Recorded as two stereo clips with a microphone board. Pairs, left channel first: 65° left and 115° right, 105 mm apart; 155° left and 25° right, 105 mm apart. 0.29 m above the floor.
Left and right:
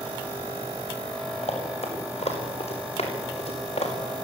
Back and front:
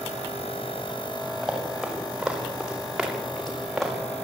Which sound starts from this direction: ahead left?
Running footsteps, at 1.4 s.